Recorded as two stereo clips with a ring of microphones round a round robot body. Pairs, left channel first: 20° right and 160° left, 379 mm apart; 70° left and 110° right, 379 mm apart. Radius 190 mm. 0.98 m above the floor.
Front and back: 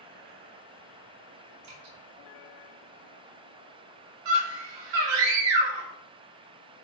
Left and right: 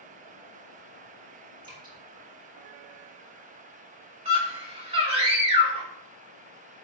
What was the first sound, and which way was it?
Dripping, 170° left.